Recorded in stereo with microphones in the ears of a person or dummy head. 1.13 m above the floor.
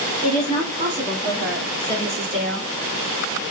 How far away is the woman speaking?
About 2.0 m.